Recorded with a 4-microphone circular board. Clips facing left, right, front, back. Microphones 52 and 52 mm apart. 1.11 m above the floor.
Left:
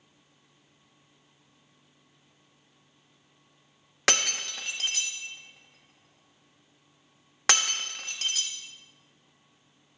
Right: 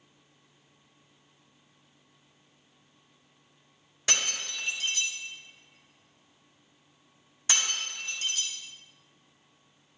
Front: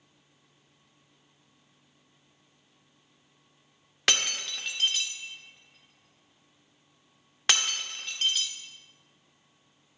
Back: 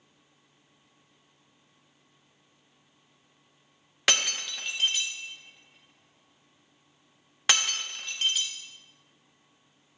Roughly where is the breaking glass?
Left.